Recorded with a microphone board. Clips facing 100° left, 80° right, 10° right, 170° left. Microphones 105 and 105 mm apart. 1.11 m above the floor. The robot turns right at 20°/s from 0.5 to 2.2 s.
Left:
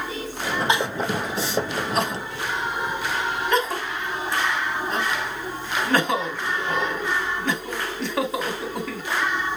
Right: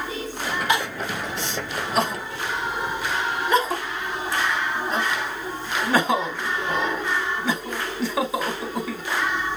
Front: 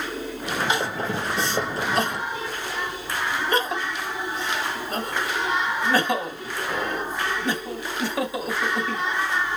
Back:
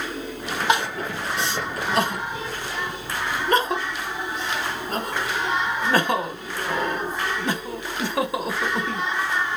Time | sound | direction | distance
0.7 | crying | 165° left | 2.5 m